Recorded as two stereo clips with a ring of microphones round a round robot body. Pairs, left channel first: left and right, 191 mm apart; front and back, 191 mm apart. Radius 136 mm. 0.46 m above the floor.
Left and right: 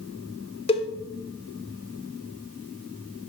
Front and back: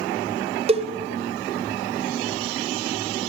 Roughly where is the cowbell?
Behind left.